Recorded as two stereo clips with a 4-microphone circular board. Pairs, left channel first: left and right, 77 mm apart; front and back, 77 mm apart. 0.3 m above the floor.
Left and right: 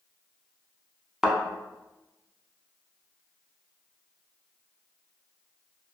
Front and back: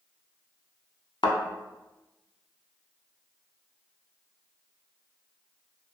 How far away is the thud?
About 0.5 m.